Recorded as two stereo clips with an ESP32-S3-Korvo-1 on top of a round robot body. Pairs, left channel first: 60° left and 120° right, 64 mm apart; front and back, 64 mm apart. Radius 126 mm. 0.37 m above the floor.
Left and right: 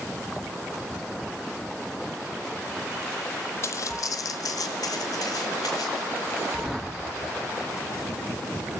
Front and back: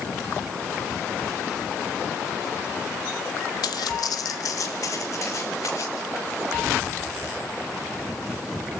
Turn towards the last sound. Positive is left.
turn(degrees=40)